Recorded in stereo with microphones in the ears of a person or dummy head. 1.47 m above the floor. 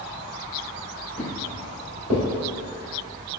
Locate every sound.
1.2 s footsteps: 20° right (ahead or behind), 1.8 m; by 2.2 s 10° left (ahead or behind), 2.0 m